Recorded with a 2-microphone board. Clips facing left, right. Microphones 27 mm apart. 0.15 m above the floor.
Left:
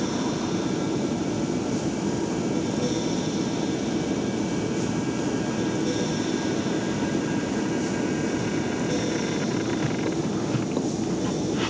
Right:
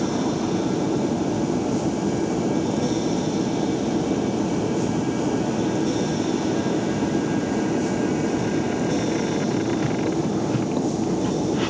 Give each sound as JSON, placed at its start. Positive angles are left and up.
{"t": 0.0, "sound": "an aircraft", "side_deg": -50}